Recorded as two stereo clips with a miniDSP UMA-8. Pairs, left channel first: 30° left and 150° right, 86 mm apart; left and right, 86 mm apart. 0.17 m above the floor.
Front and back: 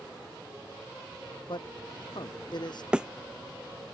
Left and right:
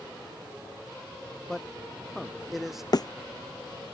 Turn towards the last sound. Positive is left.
turn(degrees=130)